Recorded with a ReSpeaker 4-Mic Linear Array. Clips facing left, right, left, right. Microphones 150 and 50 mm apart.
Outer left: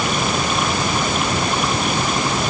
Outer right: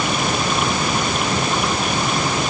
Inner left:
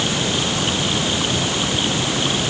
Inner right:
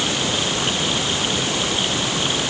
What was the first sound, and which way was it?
Only background noise.